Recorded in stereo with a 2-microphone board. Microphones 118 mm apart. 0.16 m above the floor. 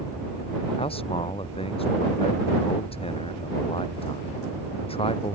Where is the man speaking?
55° left (ahead or behind).